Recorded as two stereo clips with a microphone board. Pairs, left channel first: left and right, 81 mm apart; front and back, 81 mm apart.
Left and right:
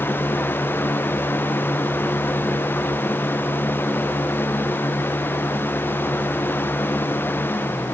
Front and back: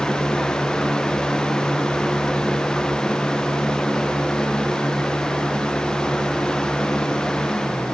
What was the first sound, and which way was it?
Only background noise.